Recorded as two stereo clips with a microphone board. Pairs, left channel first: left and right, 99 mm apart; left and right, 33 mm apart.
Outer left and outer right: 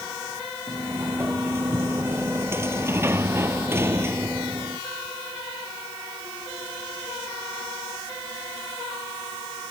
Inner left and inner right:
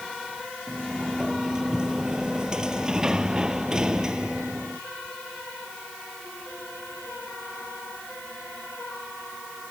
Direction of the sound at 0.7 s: 25° right (ahead or behind).